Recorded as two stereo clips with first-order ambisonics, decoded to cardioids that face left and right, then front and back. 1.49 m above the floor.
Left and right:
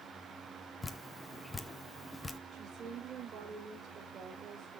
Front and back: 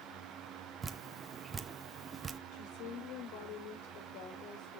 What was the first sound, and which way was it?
Dripping, 155° left.